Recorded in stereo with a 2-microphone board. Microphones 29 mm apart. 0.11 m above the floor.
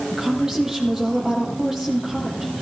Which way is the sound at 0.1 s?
15° right (ahead or behind).